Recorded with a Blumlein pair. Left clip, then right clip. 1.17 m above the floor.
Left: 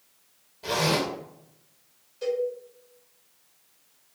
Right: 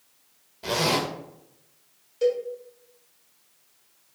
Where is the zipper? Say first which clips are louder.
Right 1 dB; 10° right, 0.7 m.